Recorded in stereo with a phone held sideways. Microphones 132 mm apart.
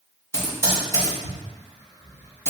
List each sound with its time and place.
0.3 s typing on a keyboard: 20° left (ahead or behind), 1.4 m